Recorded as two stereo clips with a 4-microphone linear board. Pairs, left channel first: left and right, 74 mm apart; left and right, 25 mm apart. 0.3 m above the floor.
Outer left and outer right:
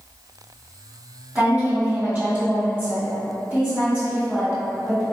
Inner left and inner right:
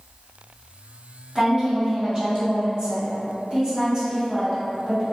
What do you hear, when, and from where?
1.4 s a woman speaking: 25° right (ahead or behind), 1.6 m